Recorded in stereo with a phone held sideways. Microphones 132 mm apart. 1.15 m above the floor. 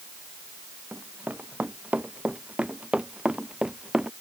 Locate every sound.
0.9 s running footsteps: 10° right (ahead or behind); by 4.1 s 5° right (ahead or behind)